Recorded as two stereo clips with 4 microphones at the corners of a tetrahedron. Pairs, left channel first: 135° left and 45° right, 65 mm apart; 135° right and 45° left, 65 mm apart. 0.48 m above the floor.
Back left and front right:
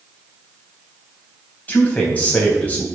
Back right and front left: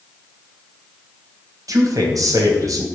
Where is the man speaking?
70° left, 3 m.